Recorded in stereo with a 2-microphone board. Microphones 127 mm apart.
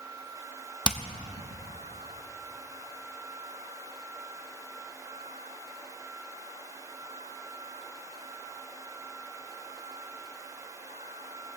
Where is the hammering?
35° right (ahead or behind), 0.8 m.